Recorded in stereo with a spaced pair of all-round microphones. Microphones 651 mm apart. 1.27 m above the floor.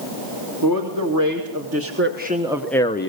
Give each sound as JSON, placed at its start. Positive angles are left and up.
{"t": 0.6, "sound": "a man speaking", "side_deg": -30, "distance_m": 2.5}